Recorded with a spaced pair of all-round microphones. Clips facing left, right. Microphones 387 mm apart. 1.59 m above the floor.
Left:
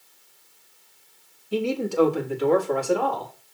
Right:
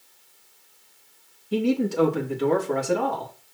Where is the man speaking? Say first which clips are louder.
Right 2 dB; 30° right (ahead or behind), 3 m; by 3.3 s 35° right (ahead or behind), 4 m.